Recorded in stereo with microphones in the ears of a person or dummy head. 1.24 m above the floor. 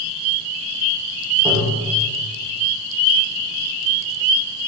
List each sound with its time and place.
1.4 s tapping: 20° right (ahead or behind), 4 m